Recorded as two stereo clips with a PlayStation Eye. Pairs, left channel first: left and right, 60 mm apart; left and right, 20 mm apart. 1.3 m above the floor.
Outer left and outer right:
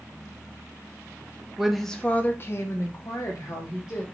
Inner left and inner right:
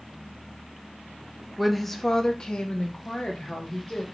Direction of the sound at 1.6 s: 10° right (ahead or behind).